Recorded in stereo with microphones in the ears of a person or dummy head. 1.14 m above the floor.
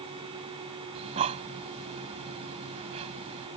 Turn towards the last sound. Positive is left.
turn(degrees=-25)  # may be behind; listen again after turning